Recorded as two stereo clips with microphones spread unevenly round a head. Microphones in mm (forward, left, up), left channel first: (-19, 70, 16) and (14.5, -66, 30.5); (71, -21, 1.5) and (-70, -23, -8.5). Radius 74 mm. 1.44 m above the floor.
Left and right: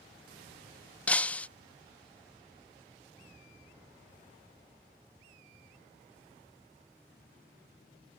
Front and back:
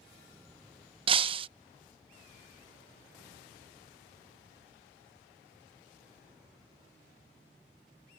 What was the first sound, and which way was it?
Breaking glass, 175° right.